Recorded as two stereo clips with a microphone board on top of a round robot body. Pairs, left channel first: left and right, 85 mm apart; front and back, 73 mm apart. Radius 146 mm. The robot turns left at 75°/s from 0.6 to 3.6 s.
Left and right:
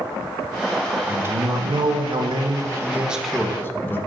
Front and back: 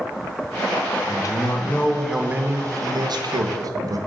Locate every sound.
1.1 s a man speaking: 20° right, 0.8 m; by 4.0 s 155° left, 0.8 m